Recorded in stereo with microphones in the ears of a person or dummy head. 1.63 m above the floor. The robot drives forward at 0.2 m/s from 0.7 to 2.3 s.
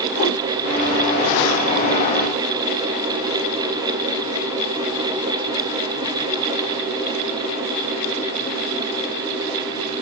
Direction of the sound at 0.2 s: 45° left (ahead or behind).